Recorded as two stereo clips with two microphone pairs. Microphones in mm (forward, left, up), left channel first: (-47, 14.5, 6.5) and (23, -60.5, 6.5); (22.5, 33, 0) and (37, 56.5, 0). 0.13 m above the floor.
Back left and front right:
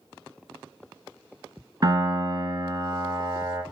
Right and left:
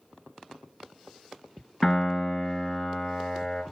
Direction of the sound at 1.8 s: 60° right.